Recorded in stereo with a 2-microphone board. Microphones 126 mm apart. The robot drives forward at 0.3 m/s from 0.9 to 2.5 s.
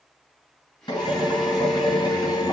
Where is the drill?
35° left (ahead or behind), 6.5 m; by 2.5 s 30° left (ahead or behind), 7 m.